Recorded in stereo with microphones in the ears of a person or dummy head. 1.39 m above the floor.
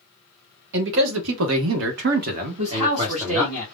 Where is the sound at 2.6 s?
35° right (ahead or behind), 0.9 m.